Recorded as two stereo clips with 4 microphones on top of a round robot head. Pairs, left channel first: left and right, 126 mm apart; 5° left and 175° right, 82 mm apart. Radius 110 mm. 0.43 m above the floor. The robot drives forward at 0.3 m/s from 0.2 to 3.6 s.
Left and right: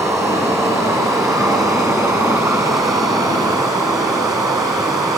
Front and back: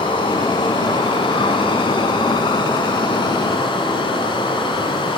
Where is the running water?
20° right, 5 m; by 5.2 s 30° right, 4 m.